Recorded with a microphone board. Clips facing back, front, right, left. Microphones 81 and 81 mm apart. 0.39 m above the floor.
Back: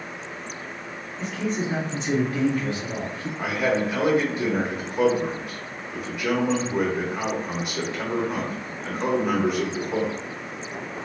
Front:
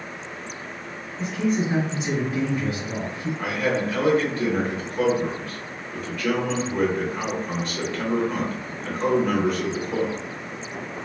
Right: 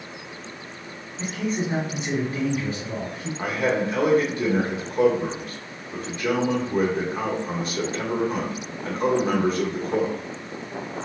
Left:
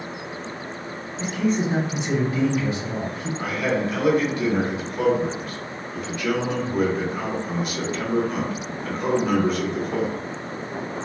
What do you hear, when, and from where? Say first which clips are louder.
1.2 s a man speaking: front 4 dB, left 4 dB; 65° right, 1.3 m
3.4 s a man speaking: back 2 dB, right 1 dB; 115° right, 1.0 m